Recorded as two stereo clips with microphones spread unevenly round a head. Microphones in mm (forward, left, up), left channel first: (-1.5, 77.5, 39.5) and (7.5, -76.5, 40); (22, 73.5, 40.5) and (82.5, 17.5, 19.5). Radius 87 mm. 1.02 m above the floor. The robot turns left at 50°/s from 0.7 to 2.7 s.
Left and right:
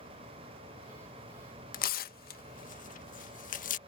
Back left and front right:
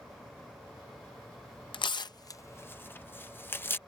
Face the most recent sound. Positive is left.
turn(degrees=65)